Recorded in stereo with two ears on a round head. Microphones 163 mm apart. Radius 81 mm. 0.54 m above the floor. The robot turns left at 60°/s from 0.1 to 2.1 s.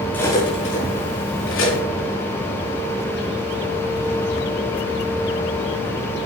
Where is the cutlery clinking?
10° left (ahead or behind), 5.5 m; by 1.8 s 70° left (ahead or behind), 5.5 m.